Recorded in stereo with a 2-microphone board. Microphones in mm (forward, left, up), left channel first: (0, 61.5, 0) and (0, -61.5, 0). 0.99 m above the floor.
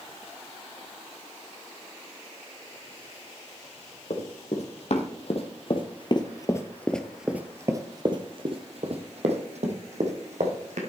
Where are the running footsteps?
65° left (ahead or behind), 2.5 m; by 10.8 s 70° right (ahead or behind), 3 m.